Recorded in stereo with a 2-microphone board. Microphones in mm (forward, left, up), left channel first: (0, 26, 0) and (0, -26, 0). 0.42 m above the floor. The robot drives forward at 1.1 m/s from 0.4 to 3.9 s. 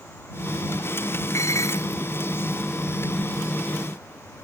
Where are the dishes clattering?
65° left (ahead or behind); by 2.0 s 70° left (ahead or behind).